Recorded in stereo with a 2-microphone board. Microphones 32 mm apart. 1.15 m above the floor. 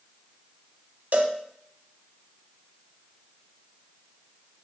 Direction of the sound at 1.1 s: 65° right (ahead or behind).